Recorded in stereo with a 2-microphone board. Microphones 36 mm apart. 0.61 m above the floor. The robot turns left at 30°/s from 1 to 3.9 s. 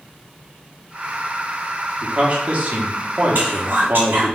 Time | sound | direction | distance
2.0 | a man speaking | 40° right | 0.9 m
3.4 | whispering | 60° right (ahead or behind) | 1.6 m